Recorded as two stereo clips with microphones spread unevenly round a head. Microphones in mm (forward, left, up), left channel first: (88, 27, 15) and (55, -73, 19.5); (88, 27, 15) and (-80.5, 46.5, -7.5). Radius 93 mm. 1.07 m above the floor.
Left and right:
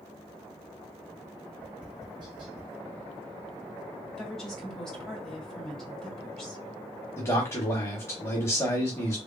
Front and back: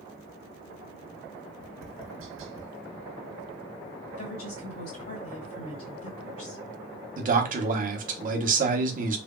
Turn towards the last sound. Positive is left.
turn(degrees=140)